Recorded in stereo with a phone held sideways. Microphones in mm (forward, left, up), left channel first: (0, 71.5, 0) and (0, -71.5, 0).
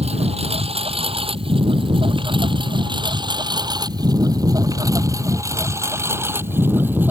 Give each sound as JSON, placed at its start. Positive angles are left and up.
{"t": 0.0, "sound": "a lawn mower", "side_deg": -45}